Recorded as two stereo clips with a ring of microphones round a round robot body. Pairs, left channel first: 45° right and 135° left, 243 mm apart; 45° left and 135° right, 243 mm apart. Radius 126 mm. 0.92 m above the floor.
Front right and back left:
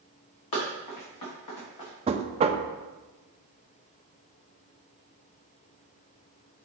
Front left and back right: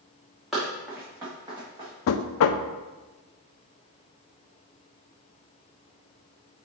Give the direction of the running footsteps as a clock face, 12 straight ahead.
2 o'clock.